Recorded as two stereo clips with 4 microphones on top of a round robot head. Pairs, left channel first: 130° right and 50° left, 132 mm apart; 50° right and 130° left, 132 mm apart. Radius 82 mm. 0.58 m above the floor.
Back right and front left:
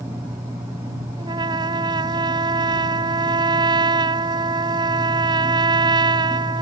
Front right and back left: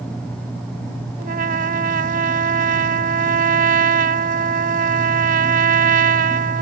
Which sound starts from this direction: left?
A trumpet, at 1.2 s.